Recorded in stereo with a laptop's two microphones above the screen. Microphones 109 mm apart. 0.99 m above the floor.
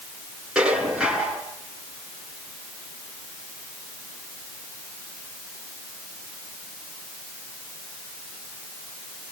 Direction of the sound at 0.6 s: 5° right (ahead or behind).